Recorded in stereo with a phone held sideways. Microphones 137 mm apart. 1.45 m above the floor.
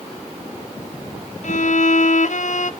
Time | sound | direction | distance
1.4 | a violin | 65° left (ahead or behind) | 0.5 m